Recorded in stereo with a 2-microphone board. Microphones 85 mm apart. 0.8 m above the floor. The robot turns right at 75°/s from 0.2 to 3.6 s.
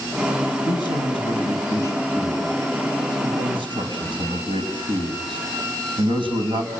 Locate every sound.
0.7 s a man speaking: 55° left (ahead or behind), 5 m; by 6.7 s 85° right, 5 m